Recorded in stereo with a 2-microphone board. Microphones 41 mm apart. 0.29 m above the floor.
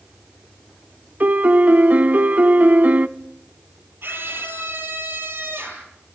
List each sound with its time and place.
1.2 s a piano: 45° right (ahead or behind), 0.7 m
4.0 s a scream: 65° right (ahead or behind), 10 m